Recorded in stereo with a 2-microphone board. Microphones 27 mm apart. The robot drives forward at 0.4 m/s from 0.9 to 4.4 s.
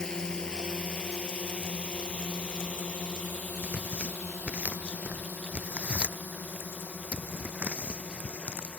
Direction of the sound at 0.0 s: 25° left (ahead or behind).